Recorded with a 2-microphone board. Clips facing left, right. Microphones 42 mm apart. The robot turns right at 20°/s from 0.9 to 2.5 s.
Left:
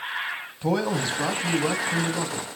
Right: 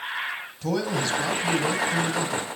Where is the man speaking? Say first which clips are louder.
Left 2 dB; 150° left, 1.8 m; by 2.5 s straight behind, 1.8 m.